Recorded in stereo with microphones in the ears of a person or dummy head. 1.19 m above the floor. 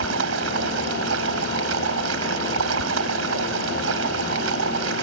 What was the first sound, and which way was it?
Running water, 90° right.